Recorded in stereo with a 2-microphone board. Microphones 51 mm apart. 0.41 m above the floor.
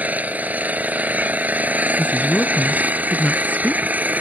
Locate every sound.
0.0 s an engine running: 30° right (ahead or behind)
2.0 s a woman speaking: 30° left (ahead or behind)